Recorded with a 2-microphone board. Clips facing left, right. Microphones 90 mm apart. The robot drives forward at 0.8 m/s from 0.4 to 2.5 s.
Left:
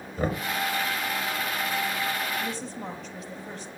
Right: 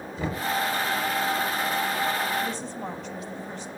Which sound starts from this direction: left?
Knocking, at 0.2 s.